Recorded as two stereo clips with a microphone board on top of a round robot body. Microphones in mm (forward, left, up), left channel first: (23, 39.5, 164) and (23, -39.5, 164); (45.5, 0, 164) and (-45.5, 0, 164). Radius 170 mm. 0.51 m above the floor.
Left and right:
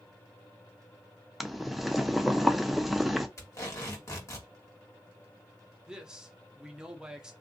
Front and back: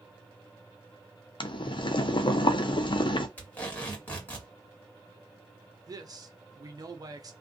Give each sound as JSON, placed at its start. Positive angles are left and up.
{"t": 1.4, "sound": "boiling", "azimuth_deg": 0, "distance_m": 0.5}
{"t": 3.4, "sound": "tape being pulled", "azimuth_deg": 65, "distance_m": 1.6}
{"t": 5.9, "sound": "a man speaking", "azimuth_deg": -165, "distance_m": 0.8}